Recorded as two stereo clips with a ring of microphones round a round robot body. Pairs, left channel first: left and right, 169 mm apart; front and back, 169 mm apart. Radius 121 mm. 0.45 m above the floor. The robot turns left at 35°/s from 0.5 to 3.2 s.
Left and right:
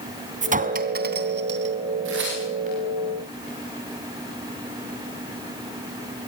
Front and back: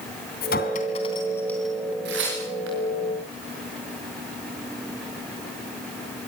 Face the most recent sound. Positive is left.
turn(degrees=-170)